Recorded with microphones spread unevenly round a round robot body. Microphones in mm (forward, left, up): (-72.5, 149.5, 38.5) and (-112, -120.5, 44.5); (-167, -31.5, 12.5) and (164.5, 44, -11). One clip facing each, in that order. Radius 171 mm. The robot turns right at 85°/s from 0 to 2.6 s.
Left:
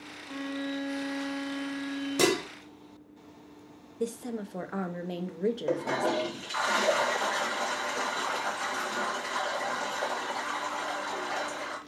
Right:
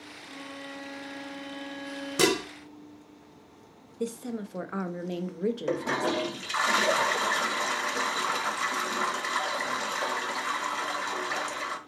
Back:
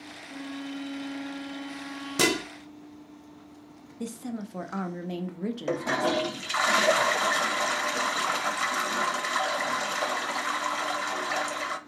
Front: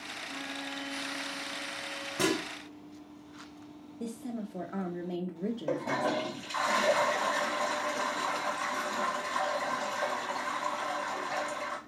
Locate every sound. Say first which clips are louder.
0.3 s a violin: left 10 dB, back 6 dB; 35° left, 1.7 m; by 2.4 s 140° right, 1.7 m
2.2 s dishes clattering: right 1 dB, back 3 dB; 170° right, 0.7 m; by 2.4 s 150° right, 0.7 m
4.0 s a woman speaking: even, back 3 dB; 175° right, 0.5 m
5.7 s a toilet flushing: even, back 5 dB; 150° right, 0.5 m